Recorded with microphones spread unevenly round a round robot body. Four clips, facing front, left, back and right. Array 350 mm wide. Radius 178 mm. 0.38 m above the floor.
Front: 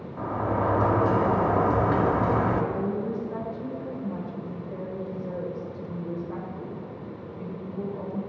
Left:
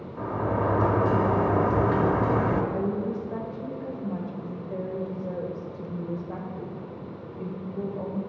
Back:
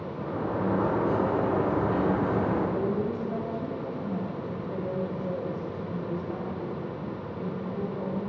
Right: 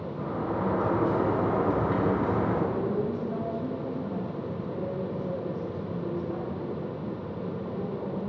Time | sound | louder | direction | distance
0.2 | a sliding door | left 4 dB, front 4 dB | 35° left | 1.2 m
2.7 | a woman speaking | even, back 1 dB | 105° left | 2 m